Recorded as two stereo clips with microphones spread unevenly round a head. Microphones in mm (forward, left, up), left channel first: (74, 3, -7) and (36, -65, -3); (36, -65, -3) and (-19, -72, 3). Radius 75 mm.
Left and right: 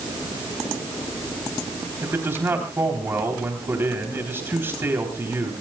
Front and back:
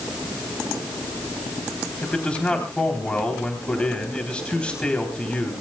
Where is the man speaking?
60° right, 3.5 m.